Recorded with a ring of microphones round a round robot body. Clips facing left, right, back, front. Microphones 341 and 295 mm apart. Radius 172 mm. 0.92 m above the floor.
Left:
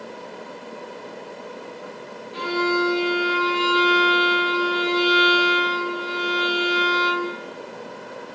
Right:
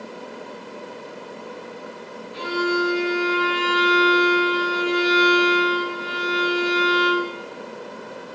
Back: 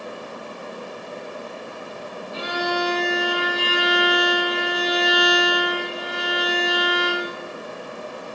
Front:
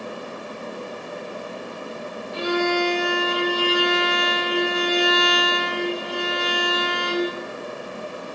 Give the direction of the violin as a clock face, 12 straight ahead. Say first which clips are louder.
Even, front 5 dB; 6 o'clock.